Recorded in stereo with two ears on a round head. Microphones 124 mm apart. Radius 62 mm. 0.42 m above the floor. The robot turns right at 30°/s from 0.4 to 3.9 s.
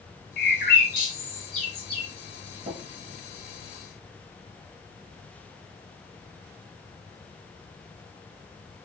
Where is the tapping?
45° right (ahead or behind), 2 m; by 2.8 s 50° right (ahead or behind), 2 m.